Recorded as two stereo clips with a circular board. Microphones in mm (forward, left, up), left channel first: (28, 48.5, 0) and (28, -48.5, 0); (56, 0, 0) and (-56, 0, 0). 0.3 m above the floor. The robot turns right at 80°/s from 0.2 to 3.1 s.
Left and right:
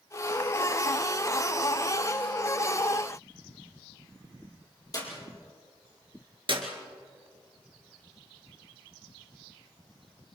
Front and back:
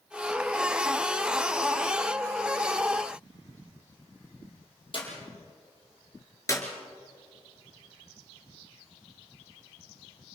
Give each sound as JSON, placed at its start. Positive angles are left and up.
{"t": 4.9, "sound": "a clap", "azimuth_deg": 40, "distance_m": 6.5}
{"t": 6.5, "sound": "a clap", "azimuth_deg": -65, "distance_m": 3.0}